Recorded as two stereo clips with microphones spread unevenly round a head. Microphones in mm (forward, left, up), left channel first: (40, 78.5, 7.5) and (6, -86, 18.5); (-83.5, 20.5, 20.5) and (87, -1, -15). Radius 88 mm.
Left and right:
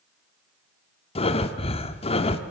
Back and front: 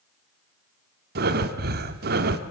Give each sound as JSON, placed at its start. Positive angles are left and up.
{"t": 1.1, "sound": "breathing", "azimuth_deg": 25, "distance_m": 1.7}